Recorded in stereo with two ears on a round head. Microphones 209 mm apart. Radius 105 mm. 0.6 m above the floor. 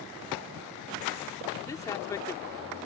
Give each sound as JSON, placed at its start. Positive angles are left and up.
{"t": 1.7, "sound": "a man speaking", "side_deg": 15}